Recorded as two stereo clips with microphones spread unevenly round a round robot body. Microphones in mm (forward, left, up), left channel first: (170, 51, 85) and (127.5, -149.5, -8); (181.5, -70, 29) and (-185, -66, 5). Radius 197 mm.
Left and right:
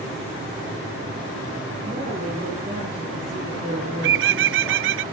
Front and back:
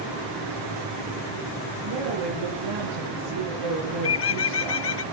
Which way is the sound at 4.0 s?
55° right.